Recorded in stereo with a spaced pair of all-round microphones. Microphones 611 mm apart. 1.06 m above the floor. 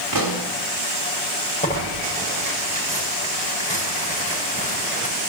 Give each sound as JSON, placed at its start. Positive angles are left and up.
{"t": 0.1, "sound": "a pop", "side_deg": -35, "distance_m": 4.0}
{"t": 1.6, "sound": "tearing paper", "side_deg": 10, "distance_m": 7.0}